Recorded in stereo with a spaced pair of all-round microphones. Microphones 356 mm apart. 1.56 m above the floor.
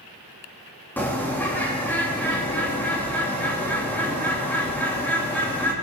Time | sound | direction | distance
1.0 | a bird | 5° left (ahead or behind) | 3 m